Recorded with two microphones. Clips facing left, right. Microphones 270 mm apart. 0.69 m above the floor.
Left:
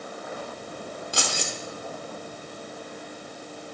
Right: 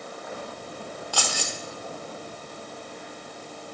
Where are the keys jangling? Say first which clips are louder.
Left 1 dB; 25° left (ahead or behind), 1.1 m.